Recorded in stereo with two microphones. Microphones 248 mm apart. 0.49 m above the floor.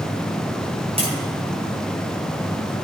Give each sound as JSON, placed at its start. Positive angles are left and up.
{"t": 1.0, "sound": "tapping", "side_deg": -25, "distance_m": 5.0}